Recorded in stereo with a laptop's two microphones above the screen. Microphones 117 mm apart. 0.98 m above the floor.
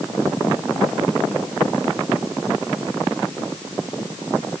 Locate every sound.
Only background noise.